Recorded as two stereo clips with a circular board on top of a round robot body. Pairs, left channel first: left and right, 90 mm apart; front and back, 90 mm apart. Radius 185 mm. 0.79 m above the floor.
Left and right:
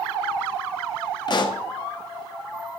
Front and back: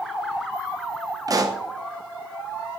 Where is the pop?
130° left, 0.8 m.